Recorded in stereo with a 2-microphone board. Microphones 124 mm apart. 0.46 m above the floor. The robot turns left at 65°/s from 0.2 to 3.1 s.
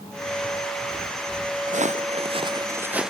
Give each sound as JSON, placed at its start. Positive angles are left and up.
{"t": 1.7, "sound": "footsteps", "side_deg": -85}